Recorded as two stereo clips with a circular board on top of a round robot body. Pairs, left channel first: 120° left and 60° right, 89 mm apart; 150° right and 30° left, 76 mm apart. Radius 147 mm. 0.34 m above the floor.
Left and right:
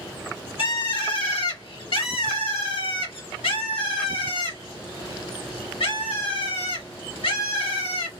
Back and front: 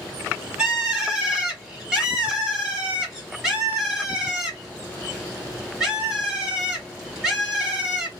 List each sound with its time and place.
0.6 s a bird: 115° left, 1.4 m